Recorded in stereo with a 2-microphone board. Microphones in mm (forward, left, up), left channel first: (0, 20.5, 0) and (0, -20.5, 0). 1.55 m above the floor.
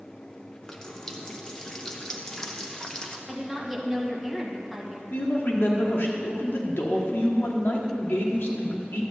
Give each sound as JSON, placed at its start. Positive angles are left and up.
{"t": 0.6, "sound": "a running tap", "side_deg": 20, "distance_m": 0.9}
{"t": 3.3, "sound": "a woman speaking", "side_deg": -5, "distance_m": 1.8}
{"t": 5.1, "sound": "a man speaking", "side_deg": 75, "distance_m": 1.3}